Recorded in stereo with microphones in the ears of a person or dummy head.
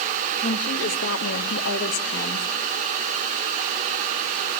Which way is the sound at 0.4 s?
50° left (ahead or behind).